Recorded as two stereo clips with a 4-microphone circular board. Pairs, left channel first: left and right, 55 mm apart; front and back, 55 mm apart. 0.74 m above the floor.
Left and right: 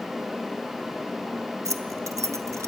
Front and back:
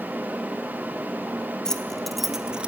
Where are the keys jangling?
80° right, 1.2 m; by 2.7 s 110° right, 0.8 m.